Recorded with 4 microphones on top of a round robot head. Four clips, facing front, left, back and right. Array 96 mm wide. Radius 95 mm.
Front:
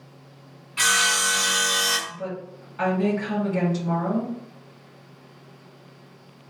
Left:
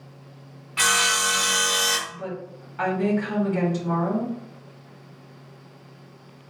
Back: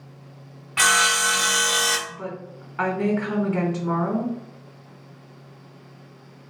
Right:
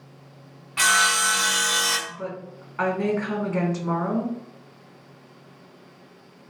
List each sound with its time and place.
0.8 s sawing: 175° right, 0.8 m
2.1 s a woman speaking: 150° right, 1.6 m